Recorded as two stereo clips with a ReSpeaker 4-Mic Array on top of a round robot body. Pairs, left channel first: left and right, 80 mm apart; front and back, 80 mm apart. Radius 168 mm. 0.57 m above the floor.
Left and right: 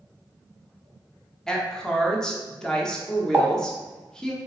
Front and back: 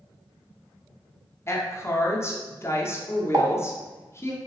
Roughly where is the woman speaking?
Ahead.